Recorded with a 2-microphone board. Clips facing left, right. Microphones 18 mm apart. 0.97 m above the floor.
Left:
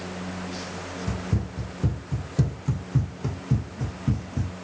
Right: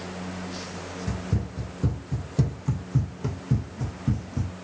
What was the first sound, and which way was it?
Running footsteps, centre (ahead or behind).